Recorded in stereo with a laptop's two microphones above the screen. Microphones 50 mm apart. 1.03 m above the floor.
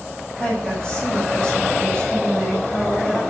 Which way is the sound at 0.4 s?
10° left (ahead or behind).